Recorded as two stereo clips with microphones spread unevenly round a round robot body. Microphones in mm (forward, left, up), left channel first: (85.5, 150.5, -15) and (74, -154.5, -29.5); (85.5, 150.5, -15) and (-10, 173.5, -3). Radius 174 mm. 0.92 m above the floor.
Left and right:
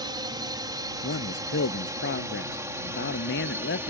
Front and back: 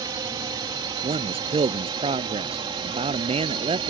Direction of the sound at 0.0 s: 165° right.